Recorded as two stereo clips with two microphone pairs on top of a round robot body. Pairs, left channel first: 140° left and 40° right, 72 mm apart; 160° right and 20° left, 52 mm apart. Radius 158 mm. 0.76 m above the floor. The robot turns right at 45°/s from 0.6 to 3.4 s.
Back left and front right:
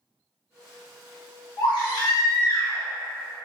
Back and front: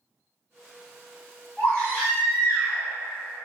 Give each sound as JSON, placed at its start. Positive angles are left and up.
{"t": 1.6, "sound": "a baby crying", "azimuth_deg": 130, "distance_m": 1.6}